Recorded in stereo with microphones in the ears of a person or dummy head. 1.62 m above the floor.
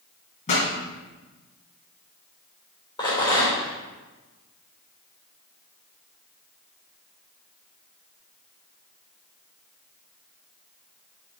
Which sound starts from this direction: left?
A pop, at 0.5 s.